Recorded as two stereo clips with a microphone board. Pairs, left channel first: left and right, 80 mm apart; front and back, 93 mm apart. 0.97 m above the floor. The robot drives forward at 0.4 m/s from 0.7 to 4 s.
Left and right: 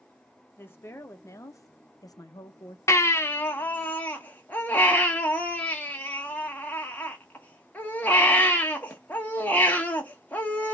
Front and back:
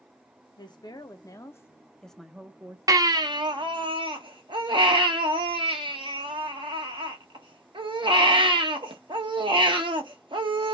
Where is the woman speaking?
30° left, 0.8 m; by 2.8 s 120° left, 0.5 m.